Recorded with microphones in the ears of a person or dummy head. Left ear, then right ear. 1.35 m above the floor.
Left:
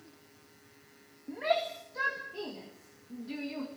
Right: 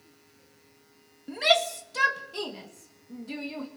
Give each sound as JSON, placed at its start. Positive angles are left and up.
{"t": 1.3, "sound": "a shout", "side_deg": -90, "distance_m": 1.8}